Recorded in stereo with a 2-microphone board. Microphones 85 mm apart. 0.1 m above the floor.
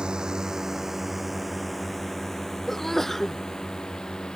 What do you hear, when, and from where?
0.0 s a drone: 10° right (ahead or behind); by 4.4 s 10° left (ahead or behind)
2.7 s a sneeze: 5° left (ahead or behind)